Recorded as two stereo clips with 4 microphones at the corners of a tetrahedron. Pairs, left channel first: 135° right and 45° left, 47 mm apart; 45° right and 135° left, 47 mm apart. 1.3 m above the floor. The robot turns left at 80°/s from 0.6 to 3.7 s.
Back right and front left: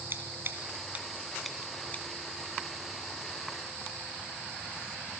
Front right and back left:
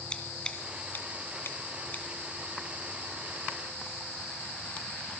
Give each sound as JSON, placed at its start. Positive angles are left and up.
{"t": 0.1, "sound": "scissors", "azimuth_deg": 20, "distance_m": 1.9}